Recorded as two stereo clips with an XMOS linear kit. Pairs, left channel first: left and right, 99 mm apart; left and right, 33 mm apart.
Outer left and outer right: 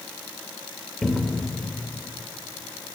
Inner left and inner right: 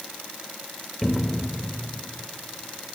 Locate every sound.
1.0 s a cupboard door: centre (ahead or behind), 1.9 m